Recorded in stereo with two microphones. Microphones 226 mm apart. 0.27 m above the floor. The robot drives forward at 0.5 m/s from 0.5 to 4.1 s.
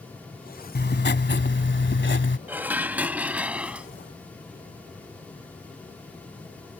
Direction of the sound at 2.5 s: 10° right (ahead or behind).